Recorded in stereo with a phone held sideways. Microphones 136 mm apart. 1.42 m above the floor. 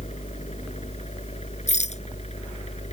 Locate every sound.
0.0 s a fan: 55° left (ahead or behind)
1.7 s a rattle: 55° left (ahead or behind)